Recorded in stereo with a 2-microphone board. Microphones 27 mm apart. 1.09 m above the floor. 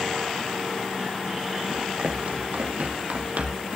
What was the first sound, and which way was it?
Running footsteps, 75° right (ahead or behind).